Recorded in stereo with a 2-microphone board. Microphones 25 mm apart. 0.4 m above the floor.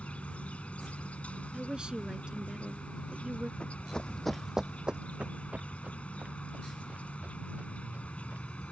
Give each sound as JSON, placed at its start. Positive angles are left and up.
{"t": 0.0, "sound": "an insect", "side_deg": 80}
{"t": 1.5, "sound": "a woman speaking", "side_deg": -40}
{"t": 3.6, "sound": "running footsteps", "side_deg": 55}